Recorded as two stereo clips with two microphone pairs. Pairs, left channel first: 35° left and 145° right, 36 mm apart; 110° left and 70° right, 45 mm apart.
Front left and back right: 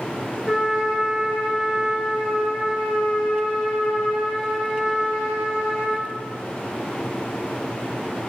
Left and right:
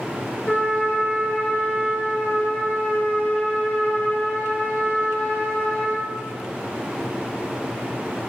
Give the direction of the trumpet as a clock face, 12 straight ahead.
8 o'clock.